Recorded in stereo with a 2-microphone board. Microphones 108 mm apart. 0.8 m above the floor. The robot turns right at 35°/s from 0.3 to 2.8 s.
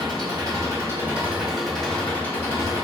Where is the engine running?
45° right, 1.3 m; by 2.9 s 40° left, 1.3 m.